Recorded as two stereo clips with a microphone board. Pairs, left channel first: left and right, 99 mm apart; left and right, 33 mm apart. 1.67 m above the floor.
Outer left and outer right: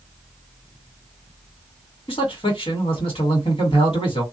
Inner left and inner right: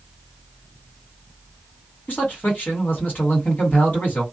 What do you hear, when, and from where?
2.1 s a man speaking: 70° left (ahead or behind), 1.8 m